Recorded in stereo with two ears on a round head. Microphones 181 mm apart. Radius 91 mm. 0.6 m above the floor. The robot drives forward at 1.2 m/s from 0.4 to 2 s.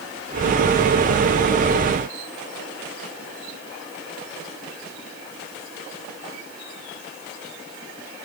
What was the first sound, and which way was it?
Only background noise.